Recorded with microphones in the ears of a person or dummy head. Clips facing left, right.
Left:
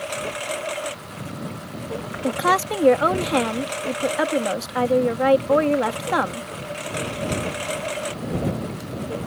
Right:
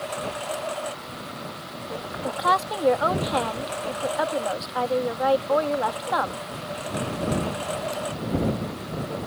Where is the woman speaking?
40° left (ahead or behind).